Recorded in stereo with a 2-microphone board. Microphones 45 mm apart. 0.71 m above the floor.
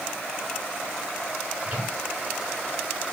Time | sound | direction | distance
1.6 | a microwave | 30° right (ahead or behind) | 8 m